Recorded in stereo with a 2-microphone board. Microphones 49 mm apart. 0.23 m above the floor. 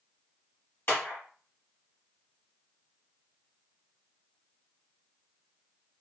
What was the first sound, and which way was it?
A clap, 50° left (ahead or behind).